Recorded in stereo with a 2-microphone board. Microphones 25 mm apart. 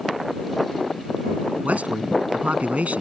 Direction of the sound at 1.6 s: 60° right (ahead or behind).